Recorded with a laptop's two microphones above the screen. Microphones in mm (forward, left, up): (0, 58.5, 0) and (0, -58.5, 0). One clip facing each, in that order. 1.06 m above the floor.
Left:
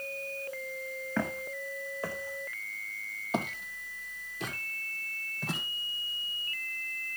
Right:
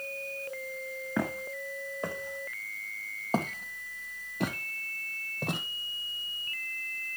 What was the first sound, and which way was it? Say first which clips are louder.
Footsteps: right 1 dB; 15° right (ahead or behind).